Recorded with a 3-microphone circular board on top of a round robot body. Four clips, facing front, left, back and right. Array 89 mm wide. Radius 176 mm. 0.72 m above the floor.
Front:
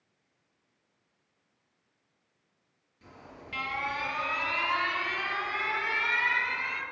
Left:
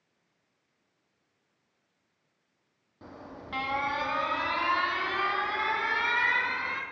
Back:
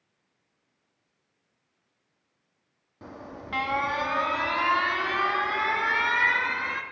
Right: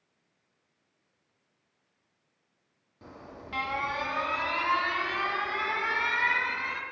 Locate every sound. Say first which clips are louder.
3.0 s an alarm: left 1 dB, back 8 dB; 170° left, 2 m